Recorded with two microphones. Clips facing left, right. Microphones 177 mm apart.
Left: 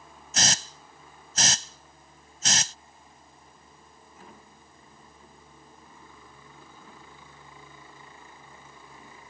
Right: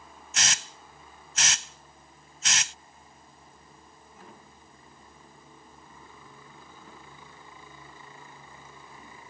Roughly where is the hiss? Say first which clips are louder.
Left 5 dB; left.